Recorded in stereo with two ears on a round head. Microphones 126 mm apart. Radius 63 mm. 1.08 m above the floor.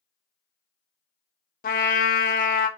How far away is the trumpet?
About 0.5 m.